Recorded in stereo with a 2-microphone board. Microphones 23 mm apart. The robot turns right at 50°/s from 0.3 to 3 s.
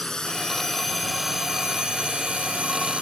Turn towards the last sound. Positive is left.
turn(degrees=-90)